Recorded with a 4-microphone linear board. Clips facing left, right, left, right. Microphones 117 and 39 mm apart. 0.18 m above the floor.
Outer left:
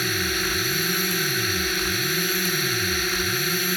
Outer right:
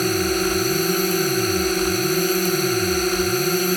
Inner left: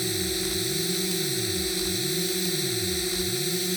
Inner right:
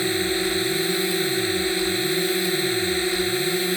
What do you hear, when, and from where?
0.0 s a drone: 40° right (ahead or behind)